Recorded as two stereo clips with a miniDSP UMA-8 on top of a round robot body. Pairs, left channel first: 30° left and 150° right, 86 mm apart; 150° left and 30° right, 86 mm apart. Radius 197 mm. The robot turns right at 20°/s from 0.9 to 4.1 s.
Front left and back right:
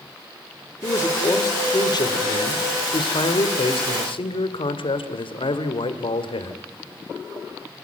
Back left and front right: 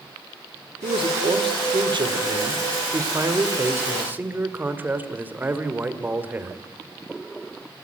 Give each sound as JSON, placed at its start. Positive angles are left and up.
{"t": 0.8, "sound": "a man speaking", "azimuth_deg": -25, "distance_m": 2.5}